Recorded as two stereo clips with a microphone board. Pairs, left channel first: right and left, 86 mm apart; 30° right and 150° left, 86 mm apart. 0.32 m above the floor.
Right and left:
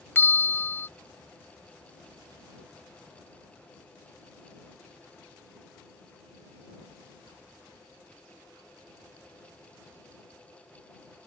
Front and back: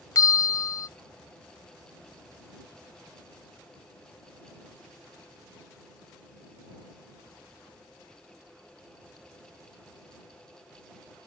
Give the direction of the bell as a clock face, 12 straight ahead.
1 o'clock.